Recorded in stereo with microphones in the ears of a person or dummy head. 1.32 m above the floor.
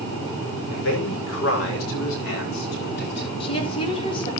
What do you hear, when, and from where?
0.7 s a man speaking: 70° left (ahead or behind), 5.5 m; by 3.3 s 60° left (ahead or behind), 4 m
3.4 s a woman speaking: 35° left (ahead or behind), 3.5 m